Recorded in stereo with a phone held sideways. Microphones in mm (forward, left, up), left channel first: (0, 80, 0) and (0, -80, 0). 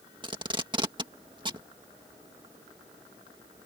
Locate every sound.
0.2 s tape being pulled: 30° right (ahead or behind)